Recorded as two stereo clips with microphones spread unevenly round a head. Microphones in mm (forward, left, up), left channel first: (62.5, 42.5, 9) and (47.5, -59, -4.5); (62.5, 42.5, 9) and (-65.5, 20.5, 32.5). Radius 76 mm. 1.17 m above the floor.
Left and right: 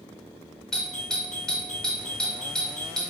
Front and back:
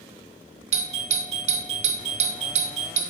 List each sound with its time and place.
0.7 s a doorbell: 175° left, 0.5 m